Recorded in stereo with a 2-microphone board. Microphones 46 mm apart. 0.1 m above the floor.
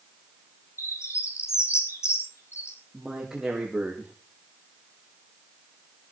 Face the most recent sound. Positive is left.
turn(degrees=-5)  # may be behind; listen again after turning